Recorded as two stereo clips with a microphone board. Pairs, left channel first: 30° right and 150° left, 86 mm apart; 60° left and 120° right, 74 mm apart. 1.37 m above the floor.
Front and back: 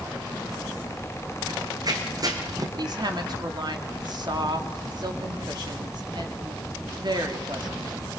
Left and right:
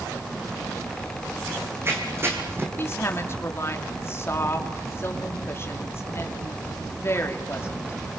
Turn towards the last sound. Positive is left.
turn(degrees=120)